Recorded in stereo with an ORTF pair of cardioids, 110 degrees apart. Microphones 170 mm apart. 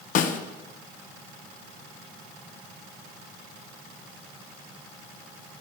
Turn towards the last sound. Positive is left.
turn(degrees=50)